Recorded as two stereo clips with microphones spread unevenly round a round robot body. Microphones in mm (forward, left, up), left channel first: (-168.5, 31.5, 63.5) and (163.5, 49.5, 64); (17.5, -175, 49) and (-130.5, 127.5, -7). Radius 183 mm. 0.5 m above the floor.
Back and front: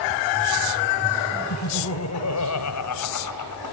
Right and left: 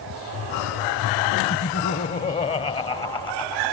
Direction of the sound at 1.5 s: 125° right.